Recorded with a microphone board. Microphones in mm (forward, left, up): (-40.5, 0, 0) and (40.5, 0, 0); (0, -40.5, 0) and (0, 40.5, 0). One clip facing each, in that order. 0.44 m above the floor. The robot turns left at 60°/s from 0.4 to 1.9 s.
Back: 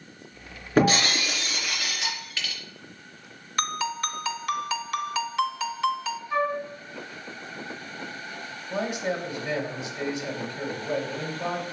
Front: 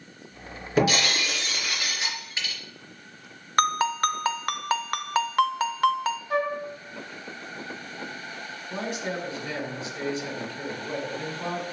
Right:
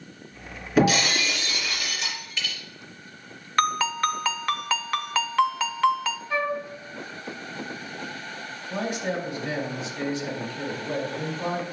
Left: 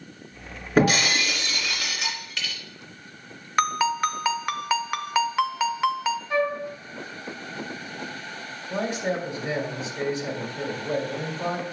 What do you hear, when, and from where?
0.8 s breaking glass: 140° left, 2.5 m; by 2.5 s 70° left, 2.5 m
3.6 s a ringtone: 15° left, 0.6 m
6.3 s a flute: 20° left, 2 m
8.7 s a man speaking: 120° left, 1.6 m